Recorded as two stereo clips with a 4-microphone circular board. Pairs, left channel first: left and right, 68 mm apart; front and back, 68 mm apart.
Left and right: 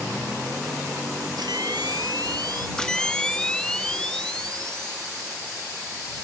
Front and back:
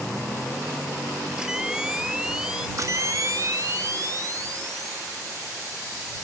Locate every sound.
1.4 s a camera shutter: 100° right
2.8 s a camera shutter: 170° left